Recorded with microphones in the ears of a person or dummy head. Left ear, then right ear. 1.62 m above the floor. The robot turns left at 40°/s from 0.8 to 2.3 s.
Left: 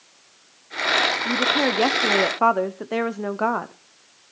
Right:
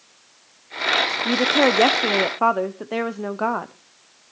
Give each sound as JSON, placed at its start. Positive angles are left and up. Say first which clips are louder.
{"t": 1.2, "sound": "a woman speaking", "louder": "right 3 dB", "azimuth_deg": -140, "distance_m": 0.6}